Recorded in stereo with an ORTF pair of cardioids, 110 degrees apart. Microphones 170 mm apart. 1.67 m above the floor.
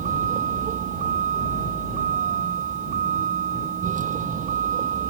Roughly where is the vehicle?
Ahead right.